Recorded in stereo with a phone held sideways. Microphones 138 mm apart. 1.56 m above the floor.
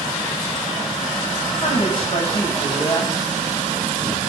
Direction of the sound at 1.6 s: 45° left (ahead or behind).